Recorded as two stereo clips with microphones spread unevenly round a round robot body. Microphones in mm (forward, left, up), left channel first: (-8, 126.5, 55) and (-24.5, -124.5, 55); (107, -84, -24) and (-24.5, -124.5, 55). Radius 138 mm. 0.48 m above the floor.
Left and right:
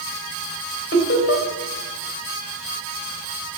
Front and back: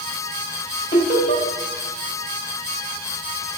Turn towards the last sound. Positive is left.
turn(degrees=40)